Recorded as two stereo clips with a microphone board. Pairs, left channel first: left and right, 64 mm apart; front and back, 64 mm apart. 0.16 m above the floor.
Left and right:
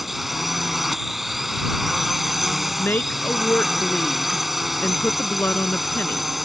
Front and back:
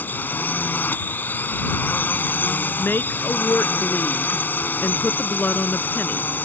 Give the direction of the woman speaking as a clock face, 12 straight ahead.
10 o'clock.